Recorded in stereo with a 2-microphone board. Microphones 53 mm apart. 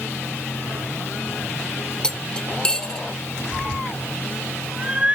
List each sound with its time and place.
2.0 s cutlery clinking: 15° left (ahead or behind), 0.5 m
3.5 s a cat meowing: 30° right (ahead or behind), 1.6 m